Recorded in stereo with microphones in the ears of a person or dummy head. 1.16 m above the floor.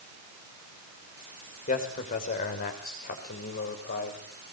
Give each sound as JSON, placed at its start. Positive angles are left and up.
{"t": 1.7, "sound": "a man speaking", "side_deg": 45, "distance_m": 5.5}